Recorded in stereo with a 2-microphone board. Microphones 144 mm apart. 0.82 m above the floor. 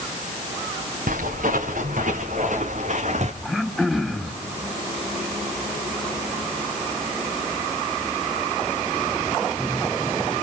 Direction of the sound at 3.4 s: Centre (ahead or behind).